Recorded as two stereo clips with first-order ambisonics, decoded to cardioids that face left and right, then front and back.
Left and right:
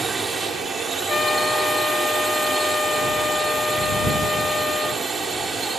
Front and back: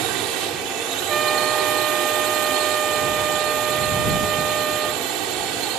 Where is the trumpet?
145° left.